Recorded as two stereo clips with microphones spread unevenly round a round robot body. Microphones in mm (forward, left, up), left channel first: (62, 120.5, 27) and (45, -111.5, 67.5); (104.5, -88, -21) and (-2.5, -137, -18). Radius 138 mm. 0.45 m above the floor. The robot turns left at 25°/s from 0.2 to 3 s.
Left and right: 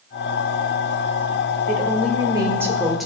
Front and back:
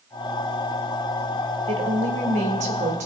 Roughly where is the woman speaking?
Behind right.